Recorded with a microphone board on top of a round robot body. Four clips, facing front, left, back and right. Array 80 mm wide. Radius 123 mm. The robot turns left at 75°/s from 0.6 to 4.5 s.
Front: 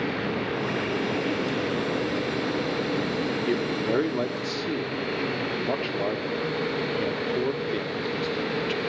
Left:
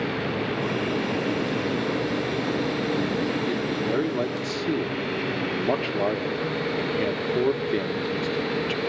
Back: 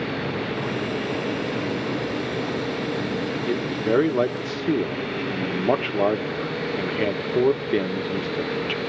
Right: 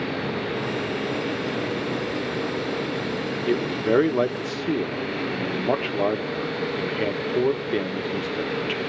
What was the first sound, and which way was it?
A man speaking, 85° right.